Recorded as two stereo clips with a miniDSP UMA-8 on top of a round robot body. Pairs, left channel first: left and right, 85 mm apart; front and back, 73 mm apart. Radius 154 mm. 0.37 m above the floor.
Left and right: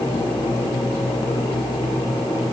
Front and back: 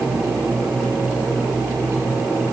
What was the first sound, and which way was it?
Only background noise.